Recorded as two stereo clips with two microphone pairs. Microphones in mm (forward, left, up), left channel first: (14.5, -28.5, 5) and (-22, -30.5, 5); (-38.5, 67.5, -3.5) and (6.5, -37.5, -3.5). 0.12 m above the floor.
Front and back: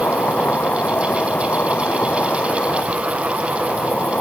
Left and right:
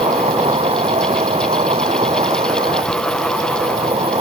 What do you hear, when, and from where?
0.0 s an insect: 35° right